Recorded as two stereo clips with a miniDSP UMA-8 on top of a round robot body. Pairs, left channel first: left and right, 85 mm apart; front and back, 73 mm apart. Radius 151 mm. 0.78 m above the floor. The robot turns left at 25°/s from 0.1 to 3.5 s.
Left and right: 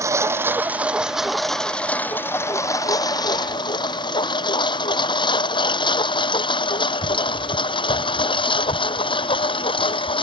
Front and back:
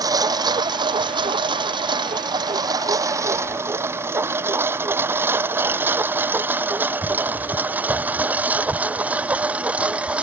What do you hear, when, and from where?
0.0 s a lawn mower: 145° right; by 10.2 s 105° left